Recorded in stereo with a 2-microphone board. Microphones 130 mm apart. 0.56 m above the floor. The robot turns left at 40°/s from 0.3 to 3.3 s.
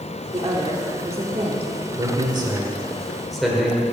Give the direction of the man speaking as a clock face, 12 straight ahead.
4 o'clock.